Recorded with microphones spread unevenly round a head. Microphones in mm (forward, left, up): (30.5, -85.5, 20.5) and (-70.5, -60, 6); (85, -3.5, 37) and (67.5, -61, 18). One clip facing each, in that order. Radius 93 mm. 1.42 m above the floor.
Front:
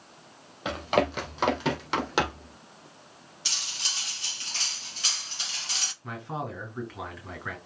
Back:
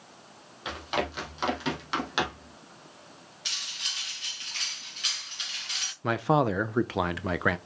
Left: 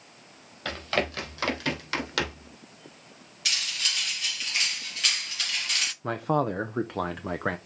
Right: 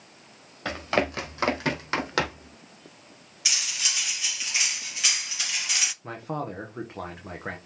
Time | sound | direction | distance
0.7 | running footsteps | 35° right | 2.5 m
3.5 | cutlery clinking | 10° right | 0.6 m
6.0 | a man speaking | 140° left | 0.6 m